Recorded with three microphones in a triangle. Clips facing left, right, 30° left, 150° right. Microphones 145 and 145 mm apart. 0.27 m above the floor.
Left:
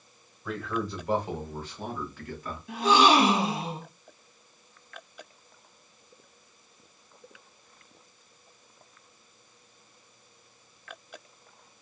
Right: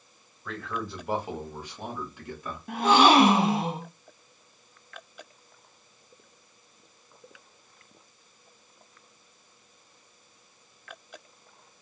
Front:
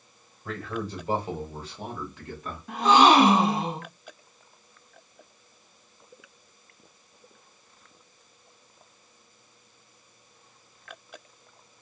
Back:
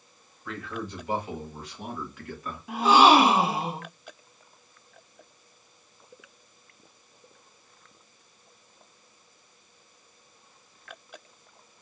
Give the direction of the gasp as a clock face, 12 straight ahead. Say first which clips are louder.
Right 2 dB, even; 2 o'clock.